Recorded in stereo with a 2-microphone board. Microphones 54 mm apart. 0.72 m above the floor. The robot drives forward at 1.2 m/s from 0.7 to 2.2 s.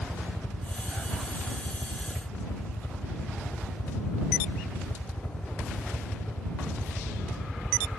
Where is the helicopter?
60° left (ahead or behind).